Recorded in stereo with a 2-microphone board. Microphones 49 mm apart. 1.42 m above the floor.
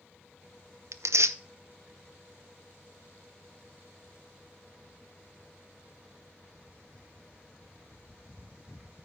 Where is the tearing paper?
75° right (ahead or behind), 0.5 m.